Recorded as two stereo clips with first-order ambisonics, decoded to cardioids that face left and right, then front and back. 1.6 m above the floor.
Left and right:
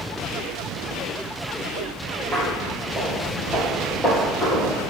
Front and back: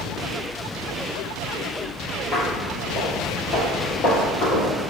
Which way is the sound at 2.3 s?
30° right.